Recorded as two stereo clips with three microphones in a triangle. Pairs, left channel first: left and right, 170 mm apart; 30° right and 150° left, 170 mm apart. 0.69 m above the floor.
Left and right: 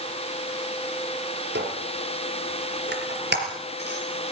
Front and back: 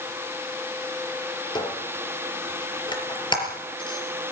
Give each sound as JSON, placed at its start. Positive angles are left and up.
{"t": 1.6, "sound": "a squeak", "azimuth_deg": -95, "distance_m": 4.5}